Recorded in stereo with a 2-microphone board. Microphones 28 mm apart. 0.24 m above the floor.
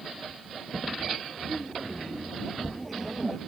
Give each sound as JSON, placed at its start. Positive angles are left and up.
{"t": 1.4, "sound": "laughter", "side_deg": 0}